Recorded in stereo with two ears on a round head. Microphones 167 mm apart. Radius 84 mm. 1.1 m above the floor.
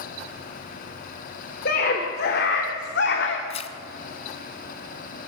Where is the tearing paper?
35° left (ahead or behind), 1.7 m.